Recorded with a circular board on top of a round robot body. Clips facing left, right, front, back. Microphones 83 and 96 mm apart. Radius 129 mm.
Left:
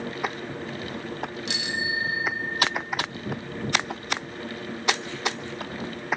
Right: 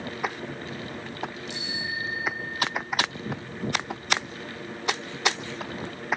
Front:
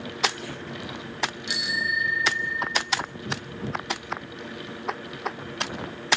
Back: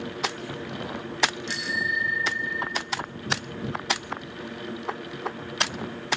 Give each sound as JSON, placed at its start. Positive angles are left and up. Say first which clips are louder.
{"t": 1.5, "sound": "a bicycle bell", "louder": "left 4 dB, even", "azimuth_deg": 80, "distance_m": 2.0}